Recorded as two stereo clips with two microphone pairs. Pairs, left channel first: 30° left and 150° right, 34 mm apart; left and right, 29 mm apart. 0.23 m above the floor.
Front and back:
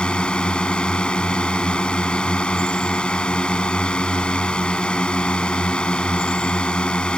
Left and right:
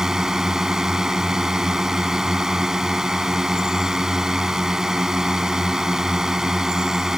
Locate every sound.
0.0 s a drone: 20° right